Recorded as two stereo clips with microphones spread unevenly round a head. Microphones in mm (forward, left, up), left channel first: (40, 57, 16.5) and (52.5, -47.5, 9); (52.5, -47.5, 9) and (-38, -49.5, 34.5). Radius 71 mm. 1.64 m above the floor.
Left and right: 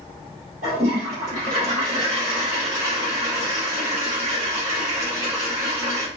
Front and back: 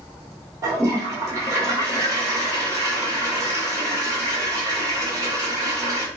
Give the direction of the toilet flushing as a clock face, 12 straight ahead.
4 o'clock.